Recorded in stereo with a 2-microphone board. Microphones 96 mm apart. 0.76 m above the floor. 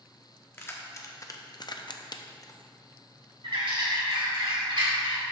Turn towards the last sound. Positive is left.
turn(degrees=-65)  # may be behind; listen again after turning